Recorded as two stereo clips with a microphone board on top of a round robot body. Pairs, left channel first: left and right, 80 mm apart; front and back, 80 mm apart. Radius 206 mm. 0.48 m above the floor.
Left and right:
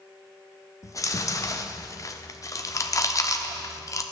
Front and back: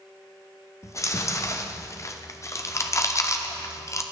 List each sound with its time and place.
0.8 s chewing: 45° left, 1.1 m